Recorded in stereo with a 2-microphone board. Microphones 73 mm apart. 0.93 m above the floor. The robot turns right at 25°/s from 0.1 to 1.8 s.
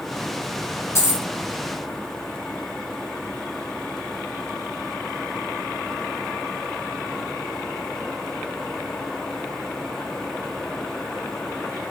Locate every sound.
0.9 s a dropped coin: 45° left (ahead or behind), 1.8 m; by 1.2 s 35° left (ahead or behind), 1.8 m